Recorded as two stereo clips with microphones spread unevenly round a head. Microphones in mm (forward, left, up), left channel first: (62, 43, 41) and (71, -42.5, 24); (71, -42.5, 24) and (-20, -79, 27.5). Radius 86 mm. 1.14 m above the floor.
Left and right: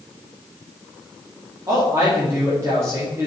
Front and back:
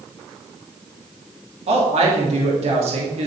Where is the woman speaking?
150° right, 2.5 m.